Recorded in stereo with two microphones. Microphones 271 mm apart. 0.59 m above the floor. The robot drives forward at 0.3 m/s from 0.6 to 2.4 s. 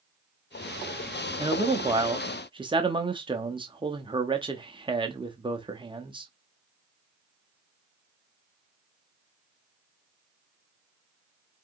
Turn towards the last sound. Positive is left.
turn(degrees=-20)  # may be behind; listen again after turning